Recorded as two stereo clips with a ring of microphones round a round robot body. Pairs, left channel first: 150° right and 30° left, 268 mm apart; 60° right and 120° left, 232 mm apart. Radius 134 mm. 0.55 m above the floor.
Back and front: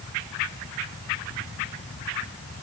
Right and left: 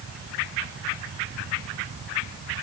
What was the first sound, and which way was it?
Only background noise.